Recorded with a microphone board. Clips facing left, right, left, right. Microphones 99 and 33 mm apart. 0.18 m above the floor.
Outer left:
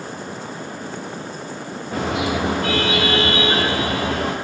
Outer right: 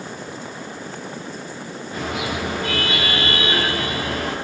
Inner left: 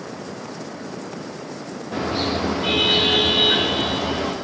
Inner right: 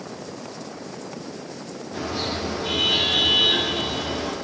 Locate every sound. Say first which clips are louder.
1.9 s a car horn: outer left 5 dB, inner left 5 dB; 75° left (ahead or behind), 8 m